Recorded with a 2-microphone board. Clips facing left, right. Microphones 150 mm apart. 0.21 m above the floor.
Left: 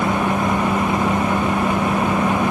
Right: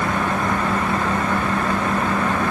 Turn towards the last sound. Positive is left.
No sound to turn to.